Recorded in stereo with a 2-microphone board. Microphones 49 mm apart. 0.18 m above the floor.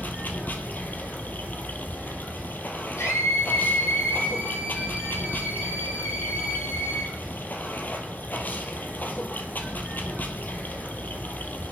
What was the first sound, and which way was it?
Running water, 40° left (ahead or behind).